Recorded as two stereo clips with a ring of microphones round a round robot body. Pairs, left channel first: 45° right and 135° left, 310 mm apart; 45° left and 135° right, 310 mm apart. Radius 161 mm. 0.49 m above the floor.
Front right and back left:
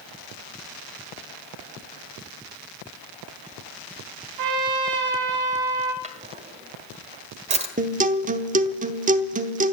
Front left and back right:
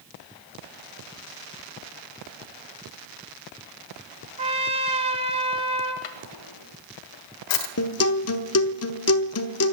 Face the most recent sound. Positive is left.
turn(degrees=75)